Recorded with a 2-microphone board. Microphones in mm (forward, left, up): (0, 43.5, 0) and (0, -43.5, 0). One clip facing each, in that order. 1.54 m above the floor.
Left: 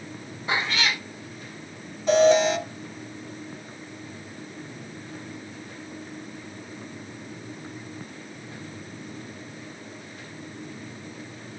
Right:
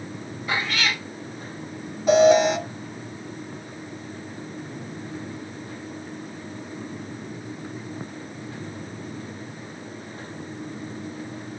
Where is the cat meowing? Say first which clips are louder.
Even; 25° left (ahead or behind), 1.7 m.